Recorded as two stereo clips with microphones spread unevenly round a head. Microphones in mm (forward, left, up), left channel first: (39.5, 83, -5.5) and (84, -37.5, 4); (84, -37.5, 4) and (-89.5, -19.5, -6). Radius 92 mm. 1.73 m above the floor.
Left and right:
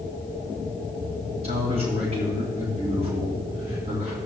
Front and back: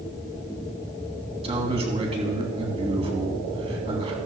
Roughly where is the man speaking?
Behind right.